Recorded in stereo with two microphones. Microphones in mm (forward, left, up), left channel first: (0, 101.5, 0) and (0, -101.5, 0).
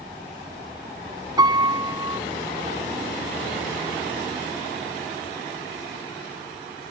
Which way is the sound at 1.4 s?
20° right (ahead or behind).